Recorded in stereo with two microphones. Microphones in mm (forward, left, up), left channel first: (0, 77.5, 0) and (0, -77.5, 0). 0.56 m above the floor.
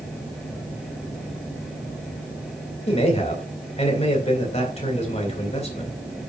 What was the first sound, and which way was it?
A man speaking, 45° left (ahead or behind).